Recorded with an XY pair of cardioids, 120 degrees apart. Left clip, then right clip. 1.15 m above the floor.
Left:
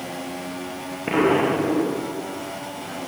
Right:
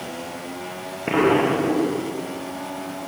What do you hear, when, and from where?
1.1 s an explosion: 5° right, 1.0 m